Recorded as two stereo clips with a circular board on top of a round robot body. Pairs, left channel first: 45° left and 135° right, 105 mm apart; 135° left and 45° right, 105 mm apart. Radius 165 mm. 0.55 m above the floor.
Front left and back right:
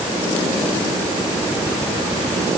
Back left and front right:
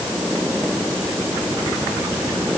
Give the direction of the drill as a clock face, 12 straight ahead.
No drill in this recording.